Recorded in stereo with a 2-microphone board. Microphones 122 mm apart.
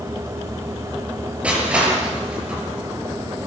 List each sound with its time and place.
1.4 s crushing: 10° right (ahead or behind), 7.5 m